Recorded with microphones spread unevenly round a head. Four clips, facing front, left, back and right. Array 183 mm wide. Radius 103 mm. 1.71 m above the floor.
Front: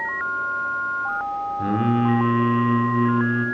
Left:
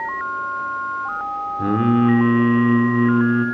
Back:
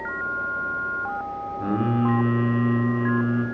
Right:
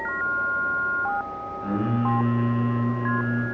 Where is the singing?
95° left, 4 m.